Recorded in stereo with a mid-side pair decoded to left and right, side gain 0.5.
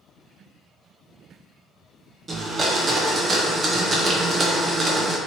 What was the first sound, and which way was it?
A blender, 35° right.